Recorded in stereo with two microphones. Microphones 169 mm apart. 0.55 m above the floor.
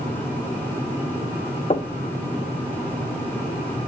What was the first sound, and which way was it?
Knocking, 40° left (ahead or behind).